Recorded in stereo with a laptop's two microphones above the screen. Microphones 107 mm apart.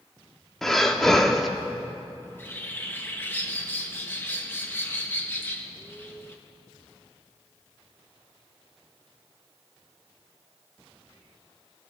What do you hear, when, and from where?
0.6 s breathing: centre (ahead or behind), 1.3 m
2.2 s a bird: 20° left (ahead or behind), 1.2 m